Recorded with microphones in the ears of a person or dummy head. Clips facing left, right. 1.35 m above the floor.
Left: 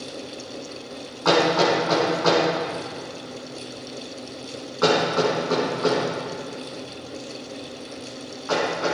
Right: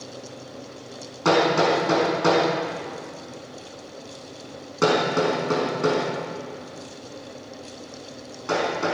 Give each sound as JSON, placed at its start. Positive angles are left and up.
{"t": 1.2, "sound": "hammering", "side_deg": -40, "distance_m": 5.0}